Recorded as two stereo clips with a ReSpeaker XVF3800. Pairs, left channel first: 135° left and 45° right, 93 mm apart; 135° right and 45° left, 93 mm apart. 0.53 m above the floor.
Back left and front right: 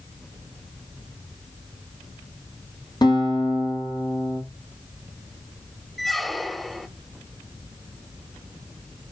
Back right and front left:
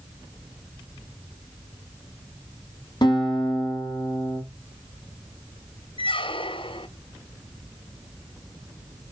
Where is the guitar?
175° right, 5.5 m.